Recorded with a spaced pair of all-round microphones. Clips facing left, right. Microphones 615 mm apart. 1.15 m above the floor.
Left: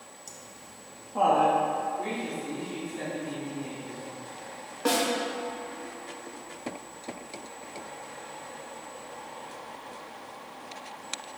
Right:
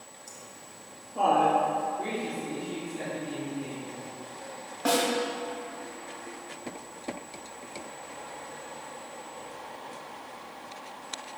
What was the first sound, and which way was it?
Laughter, 55° left (ahead or behind).